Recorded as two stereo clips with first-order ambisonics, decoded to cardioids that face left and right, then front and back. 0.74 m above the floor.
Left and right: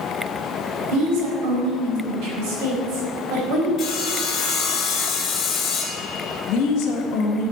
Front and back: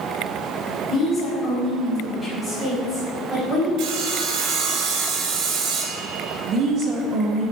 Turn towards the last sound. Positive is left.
turn(degrees=140)